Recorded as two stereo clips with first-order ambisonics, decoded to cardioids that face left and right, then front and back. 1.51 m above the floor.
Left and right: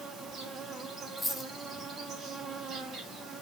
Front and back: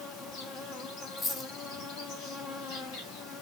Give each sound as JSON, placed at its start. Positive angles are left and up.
{"t": 0.0, "sound": "an insect", "azimuth_deg": -20, "distance_m": 1.7}
{"t": 1.2, "sound": "a dropped coin", "azimuth_deg": 5, "distance_m": 0.8}